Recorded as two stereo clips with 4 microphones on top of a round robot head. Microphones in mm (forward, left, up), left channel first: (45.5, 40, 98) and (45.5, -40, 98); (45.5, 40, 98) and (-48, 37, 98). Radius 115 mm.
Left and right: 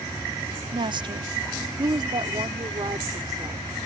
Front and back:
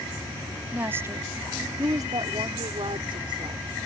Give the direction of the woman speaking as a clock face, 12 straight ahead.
4 o'clock.